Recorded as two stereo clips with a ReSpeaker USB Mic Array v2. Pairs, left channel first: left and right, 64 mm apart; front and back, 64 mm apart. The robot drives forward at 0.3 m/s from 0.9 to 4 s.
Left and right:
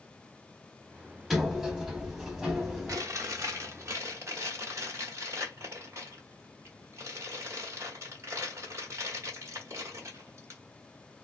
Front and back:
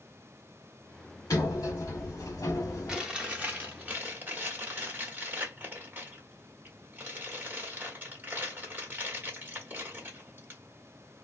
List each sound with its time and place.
1.3 s a sliding door: 5° right, 1.3 m; by 3.0 s 10° right, 0.9 m
2.9 s chewing: 105° right, 0.9 m; by 10.6 s 125° right, 1.0 m